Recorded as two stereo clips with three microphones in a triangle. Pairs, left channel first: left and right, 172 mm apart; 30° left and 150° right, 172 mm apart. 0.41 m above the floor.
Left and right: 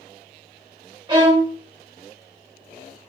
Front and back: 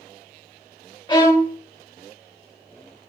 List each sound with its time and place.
1.1 s a violin: 30° right, 0.6 m